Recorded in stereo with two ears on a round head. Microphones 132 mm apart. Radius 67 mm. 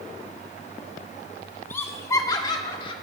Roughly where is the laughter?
Centre.